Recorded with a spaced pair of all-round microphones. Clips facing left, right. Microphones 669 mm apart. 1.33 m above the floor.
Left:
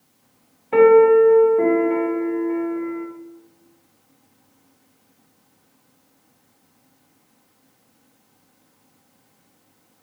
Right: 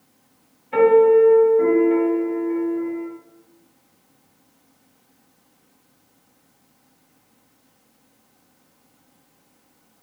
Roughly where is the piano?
Left.